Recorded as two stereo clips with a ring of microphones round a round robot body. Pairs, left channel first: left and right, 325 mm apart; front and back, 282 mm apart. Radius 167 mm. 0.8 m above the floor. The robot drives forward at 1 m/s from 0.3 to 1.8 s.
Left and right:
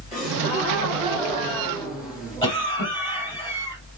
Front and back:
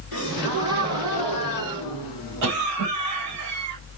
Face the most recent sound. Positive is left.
turn(degrees=165)